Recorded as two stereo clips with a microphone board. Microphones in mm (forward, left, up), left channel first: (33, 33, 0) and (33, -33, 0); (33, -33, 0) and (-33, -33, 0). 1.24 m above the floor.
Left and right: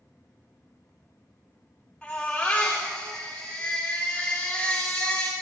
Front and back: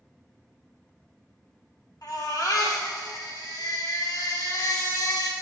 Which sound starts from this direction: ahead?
A baby crying, at 2.0 s.